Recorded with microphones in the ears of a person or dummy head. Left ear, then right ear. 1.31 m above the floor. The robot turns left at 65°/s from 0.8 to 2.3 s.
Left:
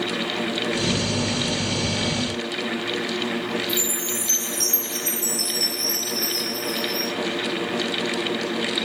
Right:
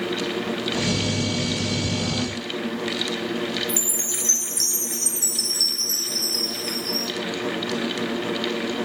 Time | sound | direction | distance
3.7 | a chime | 70° right (ahead or behind) | 2.5 m